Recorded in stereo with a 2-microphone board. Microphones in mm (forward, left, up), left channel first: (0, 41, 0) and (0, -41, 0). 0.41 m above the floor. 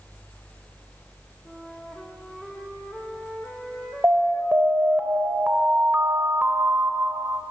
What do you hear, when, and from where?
1.4 s a flute: centre (ahead or behind), 4 m
4.0 s an alarm: 30° right (ahead or behind), 1.9 m